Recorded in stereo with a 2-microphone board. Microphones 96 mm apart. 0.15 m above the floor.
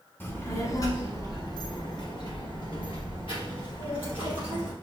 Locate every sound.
0.2 s a child speaking: 20° left (ahead or behind), 1.0 m; by 4.7 s 65° left (ahead or behind), 3 m